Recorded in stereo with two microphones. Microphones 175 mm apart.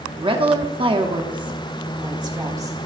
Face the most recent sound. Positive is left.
turn(degrees=-20)  # may be behind; listen again after turning